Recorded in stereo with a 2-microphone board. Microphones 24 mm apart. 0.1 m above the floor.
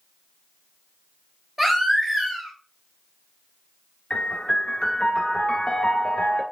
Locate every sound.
1.6 s a baby crying: 15° right (ahead or behind), 1.2 m
4.1 s a piano: 40° left (ahead or behind), 1.0 m